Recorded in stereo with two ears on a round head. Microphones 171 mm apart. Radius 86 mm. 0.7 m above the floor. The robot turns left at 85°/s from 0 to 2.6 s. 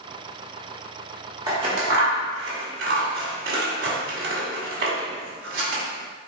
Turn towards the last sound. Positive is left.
turn(degrees=-55)  # may be behind; listen again after turning